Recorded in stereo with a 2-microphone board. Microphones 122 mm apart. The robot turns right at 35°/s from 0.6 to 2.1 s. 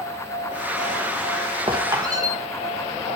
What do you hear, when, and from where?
1.7 s a squeak: 45° right (ahead or behind), 3 m; by 2.4 s 30° right (ahead or behind), 3 m